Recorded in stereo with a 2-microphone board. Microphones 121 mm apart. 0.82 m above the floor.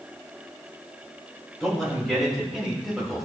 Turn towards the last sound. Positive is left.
turn(degrees=-5)  # may be behind; listen again after turning